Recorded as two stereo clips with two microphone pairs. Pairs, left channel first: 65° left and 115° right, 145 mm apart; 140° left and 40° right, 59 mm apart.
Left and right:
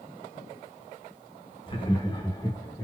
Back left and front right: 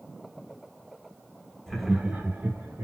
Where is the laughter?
65° left, 0.8 m; by 2.9 s 5° right, 1.1 m.